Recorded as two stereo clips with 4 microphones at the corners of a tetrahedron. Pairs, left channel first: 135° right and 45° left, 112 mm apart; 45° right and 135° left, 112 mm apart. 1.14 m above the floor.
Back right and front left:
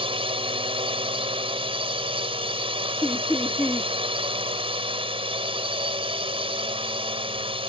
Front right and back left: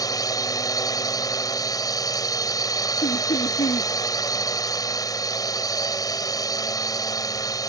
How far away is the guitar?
I don't hear a guitar.